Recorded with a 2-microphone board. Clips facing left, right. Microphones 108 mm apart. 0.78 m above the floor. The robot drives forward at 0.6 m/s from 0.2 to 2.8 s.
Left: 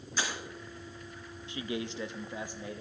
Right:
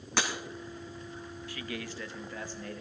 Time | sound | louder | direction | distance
0.2 | breaking glass | right 3 dB | 75° right (ahead or behind) | 2 m
1.5 | a man speaking | left 5 dB | 20° left (ahead or behind) | 0.6 m